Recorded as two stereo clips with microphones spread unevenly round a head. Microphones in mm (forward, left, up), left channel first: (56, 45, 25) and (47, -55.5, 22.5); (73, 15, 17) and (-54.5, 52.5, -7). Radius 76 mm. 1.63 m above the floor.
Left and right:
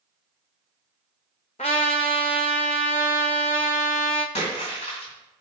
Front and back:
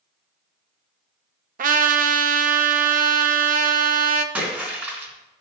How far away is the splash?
About 3.5 m.